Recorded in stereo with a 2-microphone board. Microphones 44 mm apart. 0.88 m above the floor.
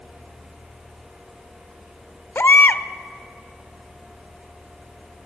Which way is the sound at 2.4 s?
55° left (ahead or behind).